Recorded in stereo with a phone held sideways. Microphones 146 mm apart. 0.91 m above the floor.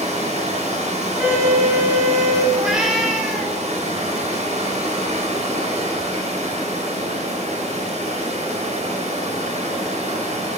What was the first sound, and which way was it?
Running water, 50° right (ahead or behind).